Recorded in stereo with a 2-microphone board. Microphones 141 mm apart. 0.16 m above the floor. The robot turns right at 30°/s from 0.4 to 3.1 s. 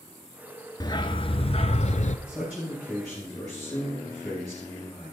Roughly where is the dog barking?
Ahead left.